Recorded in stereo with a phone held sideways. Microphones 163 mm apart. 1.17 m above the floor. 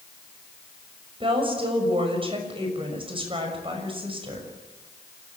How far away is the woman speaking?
About 6 m.